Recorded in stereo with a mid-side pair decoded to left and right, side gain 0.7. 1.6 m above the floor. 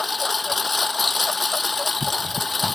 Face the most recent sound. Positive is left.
turn(degrees=15)